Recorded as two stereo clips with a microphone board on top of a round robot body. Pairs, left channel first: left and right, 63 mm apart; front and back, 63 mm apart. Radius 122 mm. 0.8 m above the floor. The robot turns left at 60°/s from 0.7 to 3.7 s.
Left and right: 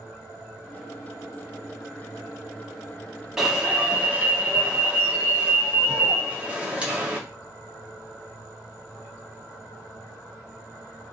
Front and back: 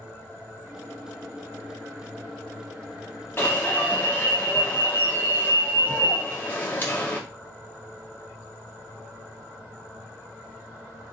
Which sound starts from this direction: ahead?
An alarm, at 3.4 s.